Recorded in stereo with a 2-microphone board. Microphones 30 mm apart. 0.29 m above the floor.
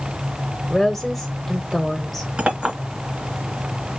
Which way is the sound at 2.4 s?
35° right (ahead or behind).